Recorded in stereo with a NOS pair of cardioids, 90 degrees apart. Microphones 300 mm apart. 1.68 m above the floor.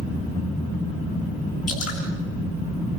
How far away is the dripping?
About 8 m.